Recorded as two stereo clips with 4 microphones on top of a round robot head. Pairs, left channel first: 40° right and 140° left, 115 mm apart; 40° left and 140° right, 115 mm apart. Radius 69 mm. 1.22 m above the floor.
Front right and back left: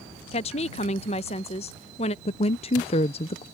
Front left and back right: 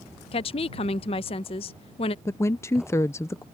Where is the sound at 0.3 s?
5° right.